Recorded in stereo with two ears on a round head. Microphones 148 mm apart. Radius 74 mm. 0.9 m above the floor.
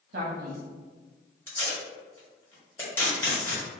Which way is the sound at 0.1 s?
55° right (ahead or behind).